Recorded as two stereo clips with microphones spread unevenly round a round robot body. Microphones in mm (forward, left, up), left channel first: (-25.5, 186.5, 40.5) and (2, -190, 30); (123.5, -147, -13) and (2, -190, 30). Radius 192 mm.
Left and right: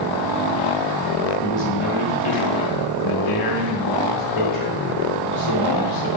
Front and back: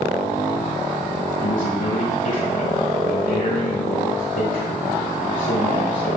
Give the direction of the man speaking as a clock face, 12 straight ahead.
10 o'clock.